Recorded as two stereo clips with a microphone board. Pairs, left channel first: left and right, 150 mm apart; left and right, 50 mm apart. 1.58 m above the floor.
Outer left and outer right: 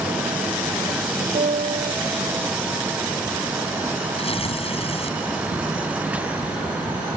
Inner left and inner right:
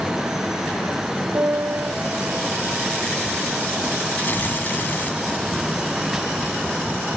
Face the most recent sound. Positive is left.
turn(degrees=40)  # may be behind; listen again after turning